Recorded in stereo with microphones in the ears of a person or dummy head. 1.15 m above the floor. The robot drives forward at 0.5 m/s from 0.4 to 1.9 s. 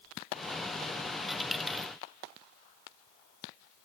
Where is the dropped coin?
Centre (ahead or behind), 1.1 m.